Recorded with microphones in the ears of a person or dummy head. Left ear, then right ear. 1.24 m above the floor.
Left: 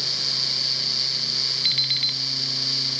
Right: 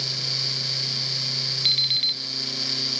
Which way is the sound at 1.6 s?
30° left (ahead or behind).